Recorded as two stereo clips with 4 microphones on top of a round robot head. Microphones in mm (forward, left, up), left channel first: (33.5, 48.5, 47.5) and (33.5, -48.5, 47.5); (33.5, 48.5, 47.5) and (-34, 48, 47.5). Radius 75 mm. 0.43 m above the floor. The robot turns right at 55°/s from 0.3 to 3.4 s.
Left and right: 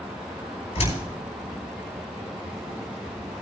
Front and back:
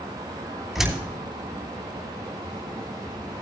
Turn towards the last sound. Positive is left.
turn(degrees=-120)